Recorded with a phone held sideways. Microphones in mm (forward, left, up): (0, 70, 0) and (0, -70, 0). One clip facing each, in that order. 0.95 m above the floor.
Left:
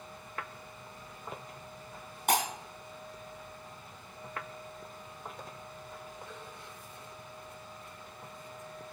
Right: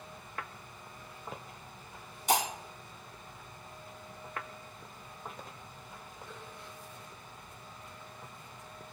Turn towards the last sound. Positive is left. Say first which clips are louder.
# even
turn(degrees=65)  # may be behind; listen again after turning